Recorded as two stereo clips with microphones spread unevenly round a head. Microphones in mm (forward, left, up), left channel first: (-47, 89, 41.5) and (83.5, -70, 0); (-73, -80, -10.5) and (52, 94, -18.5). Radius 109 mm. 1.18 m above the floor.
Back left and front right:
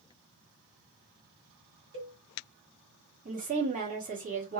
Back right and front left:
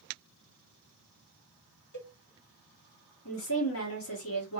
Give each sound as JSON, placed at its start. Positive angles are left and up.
{"t": 1.9, "sound": "a cowbell", "azimuth_deg": -95, "distance_m": 1.6}
{"t": 3.2, "sound": "a woman speaking", "azimuth_deg": -95, "distance_m": 1.2}